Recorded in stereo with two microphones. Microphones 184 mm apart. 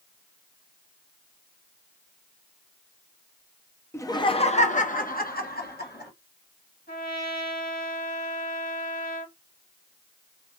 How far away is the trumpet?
About 1.8 m.